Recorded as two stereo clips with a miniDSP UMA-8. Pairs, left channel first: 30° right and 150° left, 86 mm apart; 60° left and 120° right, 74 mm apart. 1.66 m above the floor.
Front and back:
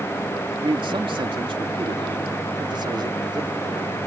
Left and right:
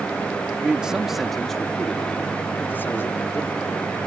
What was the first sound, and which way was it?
A man speaking, 165° left.